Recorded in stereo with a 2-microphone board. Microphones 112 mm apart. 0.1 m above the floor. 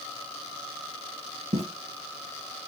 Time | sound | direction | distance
1.5 | footsteps | 85° right | 1.0 m